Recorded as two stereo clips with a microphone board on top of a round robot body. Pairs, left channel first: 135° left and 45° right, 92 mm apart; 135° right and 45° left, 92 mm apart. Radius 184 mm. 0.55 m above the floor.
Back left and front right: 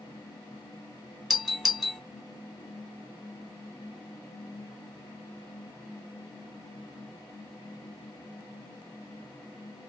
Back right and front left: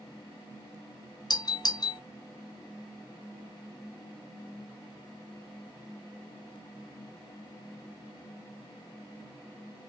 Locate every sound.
1.3 s a doorbell: 130° right, 1.4 m